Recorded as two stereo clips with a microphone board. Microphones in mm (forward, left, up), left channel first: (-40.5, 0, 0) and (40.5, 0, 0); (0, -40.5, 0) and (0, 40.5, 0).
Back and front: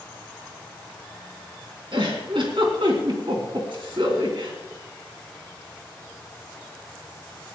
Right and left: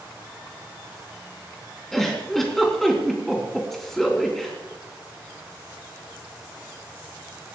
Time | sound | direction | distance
1.9 | a giggle | straight ahead | 3.5 m